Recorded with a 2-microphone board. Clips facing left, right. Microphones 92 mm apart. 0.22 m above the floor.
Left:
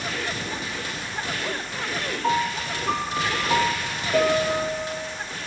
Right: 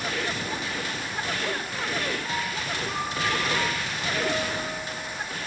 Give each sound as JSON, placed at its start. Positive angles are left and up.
{"t": 2.2, "sound": "a piano", "side_deg": 75, "distance_m": 3.0}